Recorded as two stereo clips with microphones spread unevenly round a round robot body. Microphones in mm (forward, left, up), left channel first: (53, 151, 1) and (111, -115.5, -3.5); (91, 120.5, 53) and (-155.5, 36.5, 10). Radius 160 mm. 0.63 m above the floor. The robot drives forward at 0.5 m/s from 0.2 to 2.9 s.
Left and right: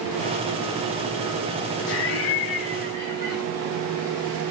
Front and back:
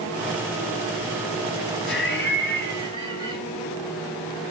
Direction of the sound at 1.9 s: 70° left.